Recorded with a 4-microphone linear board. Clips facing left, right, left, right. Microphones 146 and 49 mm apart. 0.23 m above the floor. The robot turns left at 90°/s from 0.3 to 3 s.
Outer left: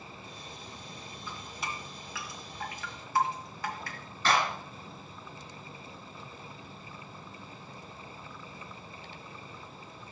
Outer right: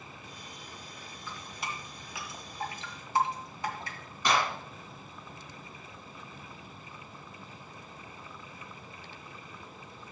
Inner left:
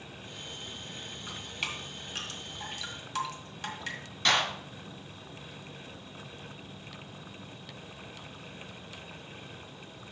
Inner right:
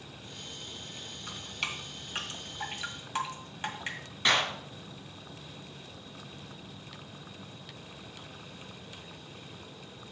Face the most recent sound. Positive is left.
turn(degrees=-15)  # may be behind; listen again after turning